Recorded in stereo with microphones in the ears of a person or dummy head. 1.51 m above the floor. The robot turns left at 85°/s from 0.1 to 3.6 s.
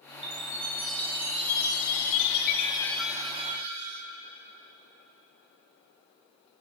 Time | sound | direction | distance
0.2 | a chime | 130° right | 2 m